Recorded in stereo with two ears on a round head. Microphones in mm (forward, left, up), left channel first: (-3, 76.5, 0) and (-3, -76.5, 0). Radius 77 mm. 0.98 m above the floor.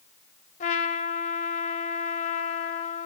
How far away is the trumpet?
About 1.3 m.